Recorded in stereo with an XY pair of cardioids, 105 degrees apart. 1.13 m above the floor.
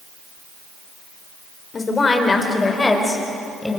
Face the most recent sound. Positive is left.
turn(degrees=15)